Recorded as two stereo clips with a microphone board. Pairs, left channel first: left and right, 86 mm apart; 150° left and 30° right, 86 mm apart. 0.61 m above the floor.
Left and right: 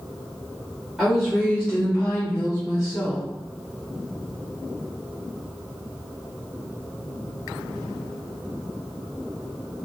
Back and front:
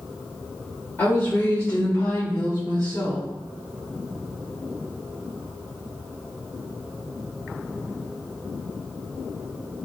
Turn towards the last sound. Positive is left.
turn(degrees=130)